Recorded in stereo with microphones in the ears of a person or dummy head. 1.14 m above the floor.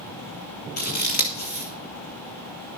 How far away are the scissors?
About 1.4 m.